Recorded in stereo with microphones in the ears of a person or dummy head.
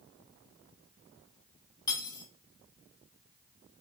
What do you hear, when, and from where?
1.9 s cutlery clinking: 25° left (ahead or behind), 1.2 m